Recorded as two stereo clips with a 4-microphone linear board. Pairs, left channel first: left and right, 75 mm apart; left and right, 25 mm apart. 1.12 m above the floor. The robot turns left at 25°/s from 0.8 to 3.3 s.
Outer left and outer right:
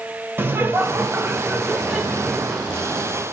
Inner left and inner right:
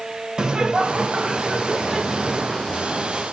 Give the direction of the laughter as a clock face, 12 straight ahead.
5 o'clock.